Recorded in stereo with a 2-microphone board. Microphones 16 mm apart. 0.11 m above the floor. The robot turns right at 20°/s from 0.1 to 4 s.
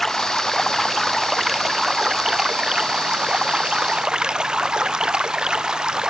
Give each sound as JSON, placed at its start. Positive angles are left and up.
{"t": 0.0, "sound": "running water", "azimuth_deg": 165}